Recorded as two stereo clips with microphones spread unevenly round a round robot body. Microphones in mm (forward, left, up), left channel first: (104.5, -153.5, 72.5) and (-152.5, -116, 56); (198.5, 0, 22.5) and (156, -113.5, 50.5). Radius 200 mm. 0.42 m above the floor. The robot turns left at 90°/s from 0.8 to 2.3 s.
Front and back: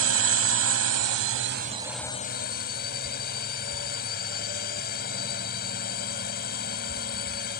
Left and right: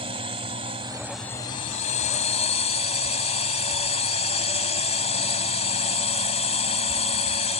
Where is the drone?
170° right; by 7.6 s 55° left.